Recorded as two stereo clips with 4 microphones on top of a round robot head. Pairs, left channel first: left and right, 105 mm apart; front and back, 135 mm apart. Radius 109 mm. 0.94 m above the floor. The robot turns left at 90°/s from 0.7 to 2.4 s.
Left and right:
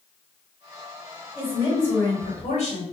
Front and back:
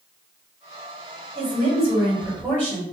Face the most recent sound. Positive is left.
turn(degrees=90)